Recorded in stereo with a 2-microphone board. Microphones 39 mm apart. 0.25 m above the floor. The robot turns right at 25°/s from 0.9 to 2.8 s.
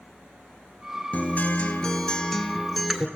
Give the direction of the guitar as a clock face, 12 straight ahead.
7 o'clock.